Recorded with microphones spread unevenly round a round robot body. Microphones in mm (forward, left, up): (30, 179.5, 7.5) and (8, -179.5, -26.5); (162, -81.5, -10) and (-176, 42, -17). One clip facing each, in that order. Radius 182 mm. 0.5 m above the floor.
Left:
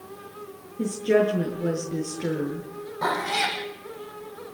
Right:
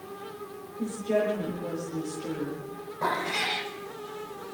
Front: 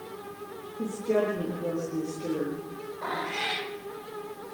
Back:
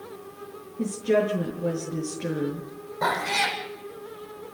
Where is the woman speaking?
110° left, 6 m.